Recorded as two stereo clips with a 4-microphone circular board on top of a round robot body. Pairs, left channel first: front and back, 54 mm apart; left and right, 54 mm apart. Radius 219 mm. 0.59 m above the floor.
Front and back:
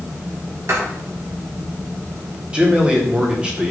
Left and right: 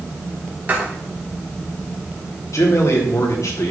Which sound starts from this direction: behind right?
Writing, at 0.7 s.